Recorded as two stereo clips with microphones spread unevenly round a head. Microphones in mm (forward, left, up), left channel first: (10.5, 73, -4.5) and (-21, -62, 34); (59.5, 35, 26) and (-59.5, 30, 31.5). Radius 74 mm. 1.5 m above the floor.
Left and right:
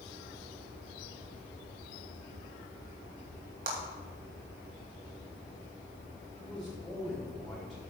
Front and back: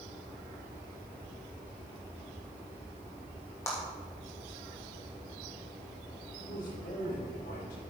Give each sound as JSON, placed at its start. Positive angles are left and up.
{"t": 3.7, "sound": "a clap", "azimuth_deg": -70, "distance_m": 2.5}
{"t": 6.4, "sound": "a man speaking", "azimuth_deg": -10, "distance_m": 4.5}